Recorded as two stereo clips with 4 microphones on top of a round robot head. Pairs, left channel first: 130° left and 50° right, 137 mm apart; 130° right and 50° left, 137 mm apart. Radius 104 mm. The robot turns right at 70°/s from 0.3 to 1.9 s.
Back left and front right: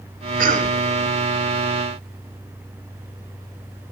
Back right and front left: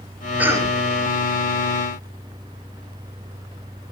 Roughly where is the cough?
Ahead right.